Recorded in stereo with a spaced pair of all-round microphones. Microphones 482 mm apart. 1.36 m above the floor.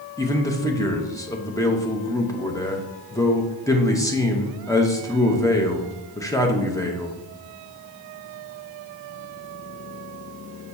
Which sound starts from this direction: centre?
A man speaking, at 0.2 s.